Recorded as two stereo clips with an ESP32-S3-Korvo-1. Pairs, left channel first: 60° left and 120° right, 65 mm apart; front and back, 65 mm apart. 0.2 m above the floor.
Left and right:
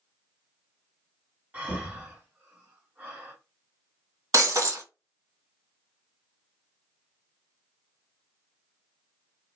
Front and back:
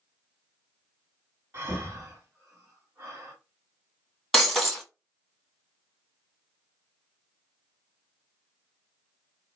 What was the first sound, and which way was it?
Breathing, 175° right.